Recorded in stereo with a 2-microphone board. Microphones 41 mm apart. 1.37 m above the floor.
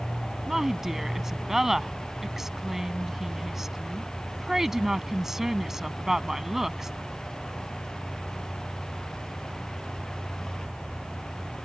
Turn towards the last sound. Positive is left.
turn(degrees=-10)  # may be behind; listen again after turning